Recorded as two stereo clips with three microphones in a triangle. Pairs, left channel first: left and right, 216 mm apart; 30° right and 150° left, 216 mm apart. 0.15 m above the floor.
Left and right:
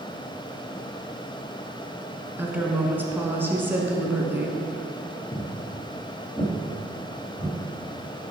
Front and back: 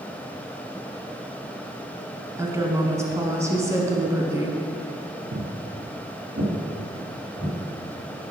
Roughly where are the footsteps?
Behind left.